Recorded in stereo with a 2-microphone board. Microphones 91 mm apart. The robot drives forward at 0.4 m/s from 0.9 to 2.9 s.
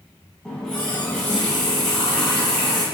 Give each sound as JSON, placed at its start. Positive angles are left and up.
{"t": 0.5, "sound": "a running tap", "side_deg": 5, "distance_m": 1.2}